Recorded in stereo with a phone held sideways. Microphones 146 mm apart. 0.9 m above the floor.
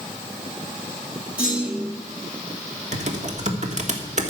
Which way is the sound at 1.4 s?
10° right (ahead or behind).